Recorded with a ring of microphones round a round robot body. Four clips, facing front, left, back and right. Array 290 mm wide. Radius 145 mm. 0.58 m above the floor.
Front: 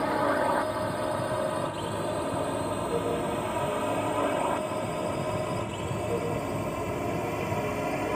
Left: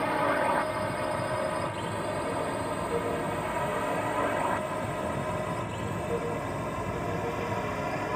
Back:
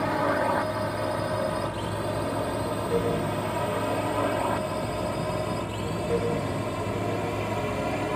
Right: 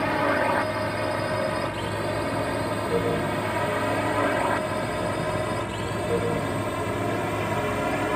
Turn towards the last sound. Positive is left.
turn(degrees=-95)